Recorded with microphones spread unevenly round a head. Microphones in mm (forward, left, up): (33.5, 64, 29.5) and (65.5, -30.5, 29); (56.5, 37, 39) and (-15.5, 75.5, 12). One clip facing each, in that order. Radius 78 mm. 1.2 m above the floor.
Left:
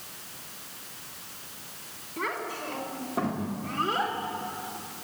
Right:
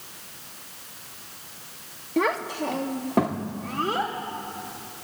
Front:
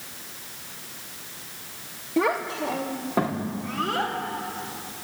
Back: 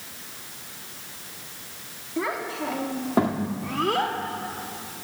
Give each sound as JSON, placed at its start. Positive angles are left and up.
{"t": 2.2, "sound": "a child speaking", "azimuth_deg": -80, "distance_m": 1.2}